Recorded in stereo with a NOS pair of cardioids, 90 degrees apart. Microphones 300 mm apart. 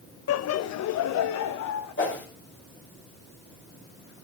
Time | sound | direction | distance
0.3 | laughter | 50° left | 0.7 m
2.0 | a whoosh | 45° left | 5 m